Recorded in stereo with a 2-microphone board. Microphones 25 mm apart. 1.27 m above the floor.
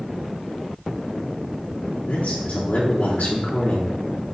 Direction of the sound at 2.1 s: 70° left (ahead or behind).